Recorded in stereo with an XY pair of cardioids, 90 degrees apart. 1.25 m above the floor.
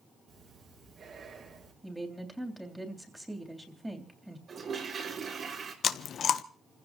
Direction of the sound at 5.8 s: 65° left.